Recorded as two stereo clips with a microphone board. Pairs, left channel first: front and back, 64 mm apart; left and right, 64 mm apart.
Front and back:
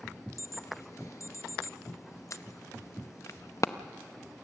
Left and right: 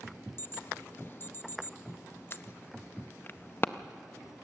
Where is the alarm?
35° left, 0.5 m.